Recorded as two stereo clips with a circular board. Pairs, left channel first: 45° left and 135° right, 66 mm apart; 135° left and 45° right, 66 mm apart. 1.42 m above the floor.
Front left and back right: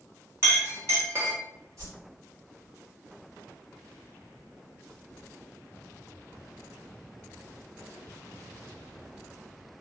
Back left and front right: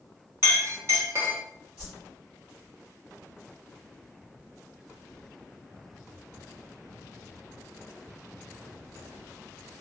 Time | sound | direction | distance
0.4 | a clink | 90° right | 0.8 m
1.8 | a whoosh | 110° right | 1.4 m